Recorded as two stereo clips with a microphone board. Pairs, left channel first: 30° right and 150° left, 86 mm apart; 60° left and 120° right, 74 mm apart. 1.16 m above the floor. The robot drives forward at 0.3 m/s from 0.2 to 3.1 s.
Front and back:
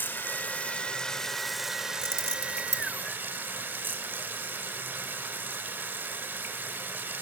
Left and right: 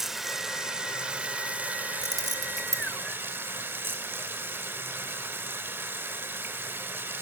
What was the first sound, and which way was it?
Running water, 40° right.